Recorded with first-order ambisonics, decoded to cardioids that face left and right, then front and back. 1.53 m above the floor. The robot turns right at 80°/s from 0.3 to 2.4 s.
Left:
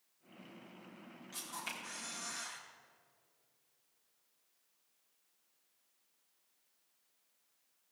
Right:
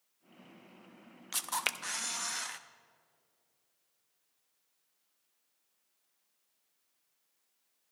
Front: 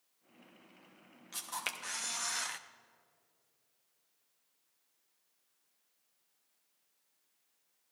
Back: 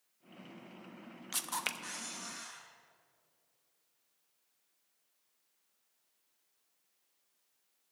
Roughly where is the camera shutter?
Behind right.